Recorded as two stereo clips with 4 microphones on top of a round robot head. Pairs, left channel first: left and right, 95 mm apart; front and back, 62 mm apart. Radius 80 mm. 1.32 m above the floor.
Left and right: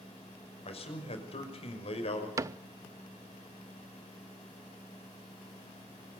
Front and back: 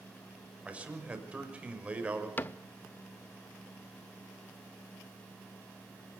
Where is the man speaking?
105° left, 6 m.